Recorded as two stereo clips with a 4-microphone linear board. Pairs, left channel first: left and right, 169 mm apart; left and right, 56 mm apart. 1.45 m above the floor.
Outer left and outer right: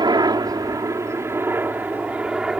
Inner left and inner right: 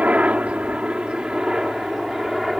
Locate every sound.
0.0 s a helicopter: 25° right (ahead or behind); by 2.6 s 5° right (ahead or behind)